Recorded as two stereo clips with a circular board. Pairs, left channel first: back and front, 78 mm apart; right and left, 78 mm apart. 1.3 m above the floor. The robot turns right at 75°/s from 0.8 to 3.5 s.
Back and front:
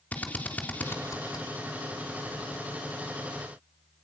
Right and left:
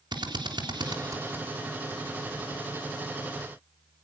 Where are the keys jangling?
I don't hear keys jangling.